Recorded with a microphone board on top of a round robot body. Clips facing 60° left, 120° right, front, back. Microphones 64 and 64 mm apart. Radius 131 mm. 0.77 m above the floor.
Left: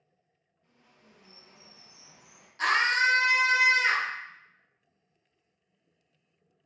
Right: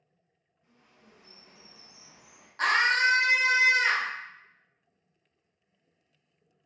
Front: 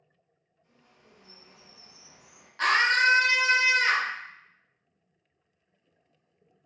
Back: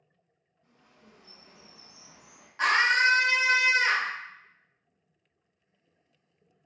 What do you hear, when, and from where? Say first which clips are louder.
0.6 s a bird: right 1 dB, back 1 dB; 160° left, 1.0 m
2.6 s a scream: right 1 dB, even; 105° right, 1.3 m